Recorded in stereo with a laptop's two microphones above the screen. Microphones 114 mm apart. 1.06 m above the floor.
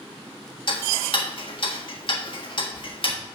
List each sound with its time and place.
0.7 s ticking: 50° left (ahead or behind), 1.5 m